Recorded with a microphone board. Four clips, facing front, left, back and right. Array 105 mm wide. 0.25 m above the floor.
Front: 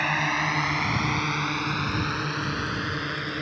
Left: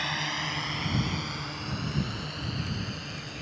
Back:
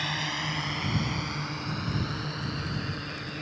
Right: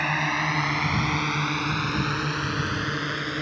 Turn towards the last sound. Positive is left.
turn(degrees=-55)